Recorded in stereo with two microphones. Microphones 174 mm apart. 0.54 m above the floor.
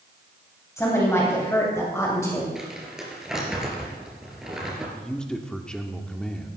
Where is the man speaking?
5° left (ahead or behind), 1.2 m.